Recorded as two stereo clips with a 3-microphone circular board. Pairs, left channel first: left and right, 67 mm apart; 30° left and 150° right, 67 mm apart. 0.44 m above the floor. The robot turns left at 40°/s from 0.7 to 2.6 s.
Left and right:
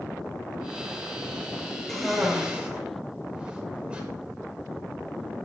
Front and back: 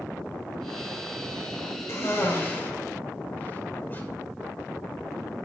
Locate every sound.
1.9 s a cough: 5° left, 1.7 m; by 4.0 s 20° right, 1.7 m